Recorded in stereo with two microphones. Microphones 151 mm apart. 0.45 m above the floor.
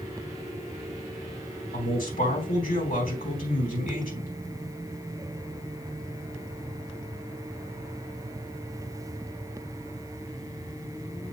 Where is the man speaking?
70° left (ahead or behind), 4 m.